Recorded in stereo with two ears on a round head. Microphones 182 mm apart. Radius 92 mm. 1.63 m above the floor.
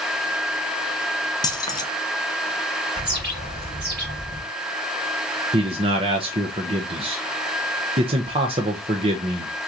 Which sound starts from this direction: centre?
Keys jangling, at 1.4 s.